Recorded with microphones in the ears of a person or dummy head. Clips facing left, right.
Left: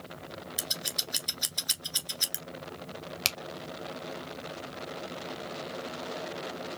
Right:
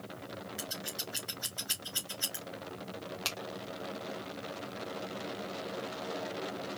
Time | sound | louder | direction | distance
0.6 | scissors | left 1 dB | 55° left (ahead or behind) | 1.4 m
3.2 | a finger snap | left 1 dB | 35° left (ahead or behind) | 1.3 m